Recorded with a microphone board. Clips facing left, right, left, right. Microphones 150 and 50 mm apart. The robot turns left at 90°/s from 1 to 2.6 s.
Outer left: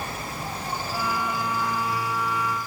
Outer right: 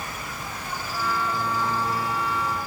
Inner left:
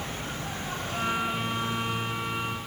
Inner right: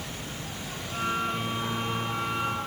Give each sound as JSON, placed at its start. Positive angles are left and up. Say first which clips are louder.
{"t": 0.0, "sound": "an insect", "louder": "outer left 3 dB, inner left 3 dB", "azimuth_deg": 35}